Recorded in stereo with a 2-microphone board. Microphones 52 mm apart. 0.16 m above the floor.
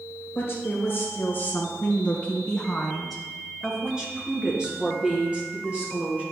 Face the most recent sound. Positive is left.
turn(degrees=-30)  # may be behind; listen again after turning